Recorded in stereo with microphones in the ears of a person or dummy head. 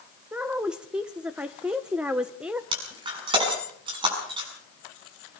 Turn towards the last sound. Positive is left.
turn(degrees=-25)  # may be behind; listen again after turning